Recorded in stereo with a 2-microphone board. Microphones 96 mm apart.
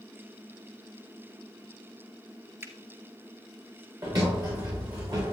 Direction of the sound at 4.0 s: 45° right (ahead or behind).